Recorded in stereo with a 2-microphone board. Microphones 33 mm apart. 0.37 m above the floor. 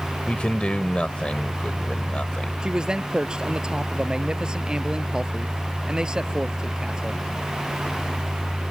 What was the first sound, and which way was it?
A man speaking, 35° left (ahead or behind).